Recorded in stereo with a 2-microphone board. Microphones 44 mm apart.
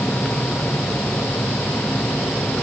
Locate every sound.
Only background noise.